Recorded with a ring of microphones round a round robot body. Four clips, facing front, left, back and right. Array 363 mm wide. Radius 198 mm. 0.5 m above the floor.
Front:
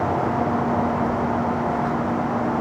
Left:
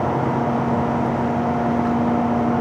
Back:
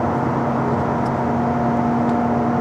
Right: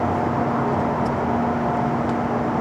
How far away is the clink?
I don't hear a clink.